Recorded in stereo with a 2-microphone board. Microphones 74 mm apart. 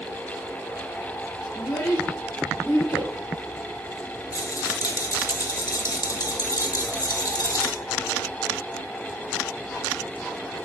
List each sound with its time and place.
1.6 s a child speaking: 75° left (ahead or behind), 4.5 m; by 3.1 s 80° left, 5 m
4.3 s a rattle: 50° left (ahead or behind), 1.4 m